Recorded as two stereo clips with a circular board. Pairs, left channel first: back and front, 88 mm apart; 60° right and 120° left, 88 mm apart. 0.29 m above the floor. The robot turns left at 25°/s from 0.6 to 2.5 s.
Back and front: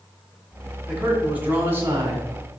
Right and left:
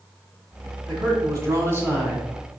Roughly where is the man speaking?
Left.